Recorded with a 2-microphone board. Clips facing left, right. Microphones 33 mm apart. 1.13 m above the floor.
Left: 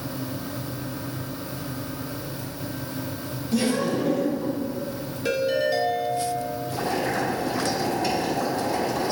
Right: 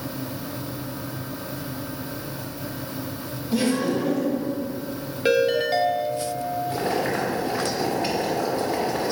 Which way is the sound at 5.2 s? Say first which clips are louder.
Right 3 dB; 35° right (ahead or behind).